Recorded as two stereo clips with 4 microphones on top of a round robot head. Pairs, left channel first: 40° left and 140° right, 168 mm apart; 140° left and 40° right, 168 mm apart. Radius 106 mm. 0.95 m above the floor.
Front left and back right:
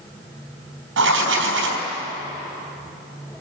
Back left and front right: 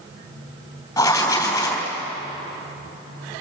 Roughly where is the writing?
Behind right.